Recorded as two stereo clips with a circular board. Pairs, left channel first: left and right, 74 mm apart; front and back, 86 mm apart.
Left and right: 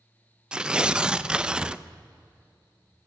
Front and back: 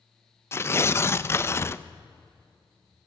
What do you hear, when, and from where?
0.5 s tearing paper: 25° right, 0.6 m